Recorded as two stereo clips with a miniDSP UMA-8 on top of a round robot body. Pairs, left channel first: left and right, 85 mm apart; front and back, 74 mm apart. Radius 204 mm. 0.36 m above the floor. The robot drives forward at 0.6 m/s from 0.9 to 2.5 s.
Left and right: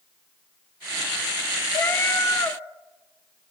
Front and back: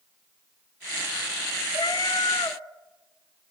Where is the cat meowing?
25° left, 1.6 m; by 2.6 s 30° left, 1.2 m.